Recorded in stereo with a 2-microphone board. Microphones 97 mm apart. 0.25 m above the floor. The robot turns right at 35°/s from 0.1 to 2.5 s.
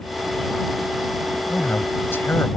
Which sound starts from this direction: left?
A man speaking, at 1.5 s.